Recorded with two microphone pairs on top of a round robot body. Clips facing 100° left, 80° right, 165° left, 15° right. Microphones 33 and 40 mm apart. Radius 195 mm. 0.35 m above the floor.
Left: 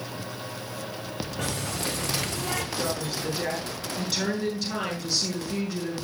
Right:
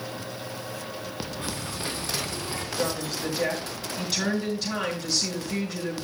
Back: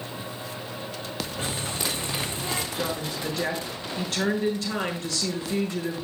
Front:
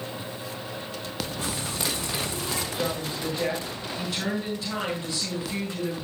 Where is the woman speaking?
165° right, 9 m.